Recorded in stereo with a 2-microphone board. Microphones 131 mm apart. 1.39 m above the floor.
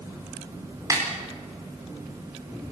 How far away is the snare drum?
About 4.5 m.